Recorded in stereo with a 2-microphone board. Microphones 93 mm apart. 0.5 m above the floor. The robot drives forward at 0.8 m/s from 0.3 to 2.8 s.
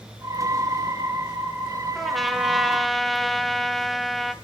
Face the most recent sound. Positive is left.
turn(degrees=0)  # may be behind; listen again after turning